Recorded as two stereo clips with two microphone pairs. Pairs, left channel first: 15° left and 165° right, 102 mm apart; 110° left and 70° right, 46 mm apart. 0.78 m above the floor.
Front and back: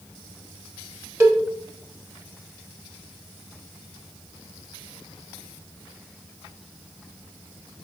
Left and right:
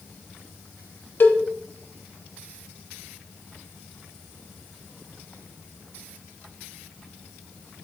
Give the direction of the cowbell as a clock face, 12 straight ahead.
7 o'clock.